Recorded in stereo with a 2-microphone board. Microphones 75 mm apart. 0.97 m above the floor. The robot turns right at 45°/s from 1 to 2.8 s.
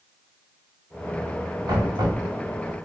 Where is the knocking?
65° right (ahead or behind), 2 m; by 2.2 s 85° right, 2 m.